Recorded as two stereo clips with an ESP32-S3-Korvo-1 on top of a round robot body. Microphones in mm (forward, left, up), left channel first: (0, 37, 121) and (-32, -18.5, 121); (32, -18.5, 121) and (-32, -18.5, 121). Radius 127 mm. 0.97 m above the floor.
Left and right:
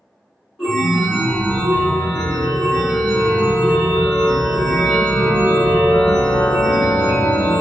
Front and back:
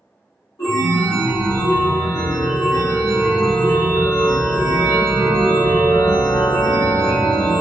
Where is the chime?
15° right, 1.8 m.